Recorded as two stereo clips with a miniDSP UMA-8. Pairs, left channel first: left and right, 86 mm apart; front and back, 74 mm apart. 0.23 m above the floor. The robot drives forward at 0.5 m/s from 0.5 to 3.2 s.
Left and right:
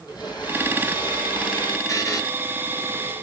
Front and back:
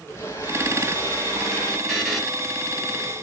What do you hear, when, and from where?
0.1 s a blender: 50° left, 3 m; by 1.8 s 60° left, 3 m
1.9 s a buzzer: 75° left, 1.9 m; by 2.2 s 85° left, 1.9 m